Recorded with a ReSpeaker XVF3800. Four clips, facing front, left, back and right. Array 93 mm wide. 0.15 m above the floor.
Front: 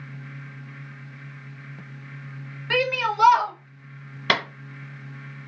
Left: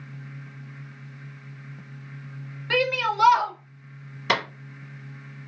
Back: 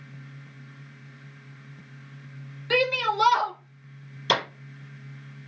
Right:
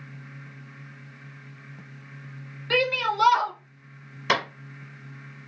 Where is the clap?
5° right, 1.9 m.